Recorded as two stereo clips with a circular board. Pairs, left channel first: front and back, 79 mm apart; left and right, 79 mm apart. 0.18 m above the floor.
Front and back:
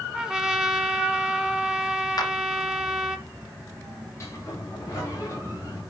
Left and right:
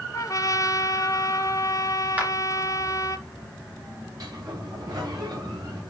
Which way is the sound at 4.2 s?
50° right.